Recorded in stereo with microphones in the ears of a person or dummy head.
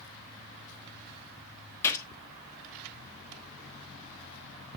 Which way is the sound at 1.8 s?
15° left (ahead or behind).